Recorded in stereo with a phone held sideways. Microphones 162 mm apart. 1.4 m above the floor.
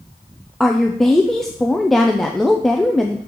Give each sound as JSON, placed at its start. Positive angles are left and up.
{"t": 0.6, "sound": "a woman speaking", "side_deg": 0, "distance_m": 0.5}